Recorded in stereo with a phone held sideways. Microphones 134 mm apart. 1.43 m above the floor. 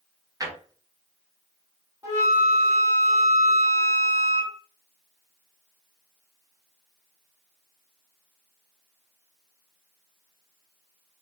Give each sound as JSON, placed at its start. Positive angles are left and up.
{"t": 0.4, "sound": "a drawer", "side_deg": -25, "distance_m": 0.6}
{"t": 2.0, "sound": "a flute", "side_deg": -20, "distance_m": 1.5}